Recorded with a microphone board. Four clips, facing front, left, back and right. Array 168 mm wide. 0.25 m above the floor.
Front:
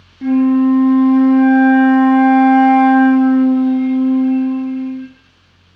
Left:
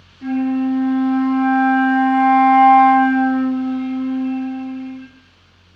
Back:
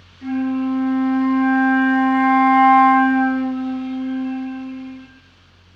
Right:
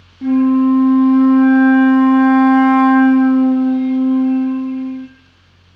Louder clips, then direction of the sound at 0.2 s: Right 7 dB, front 9 dB; 30° right.